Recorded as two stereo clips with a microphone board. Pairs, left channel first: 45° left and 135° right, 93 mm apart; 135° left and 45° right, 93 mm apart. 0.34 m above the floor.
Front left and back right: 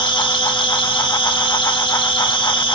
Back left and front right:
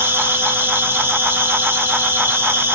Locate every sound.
0.0 s an insect: 25° left, 3 m